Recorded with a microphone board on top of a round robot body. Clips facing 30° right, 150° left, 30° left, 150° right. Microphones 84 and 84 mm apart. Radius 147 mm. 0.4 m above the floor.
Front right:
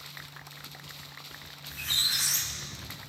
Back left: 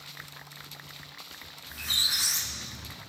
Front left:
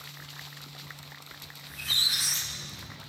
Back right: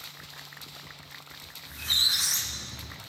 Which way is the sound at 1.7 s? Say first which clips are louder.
Back left 1 dB, back right 1 dB; 150° right.